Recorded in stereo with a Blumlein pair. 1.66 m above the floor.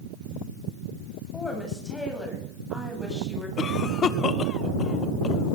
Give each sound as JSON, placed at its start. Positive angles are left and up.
{"t": 1.3, "sound": "a woman speaking", "azimuth_deg": 10, "distance_m": 9.0}
{"t": 3.6, "sound": "a cough", "azimuth_deg": 25, "distance_m": 1.4}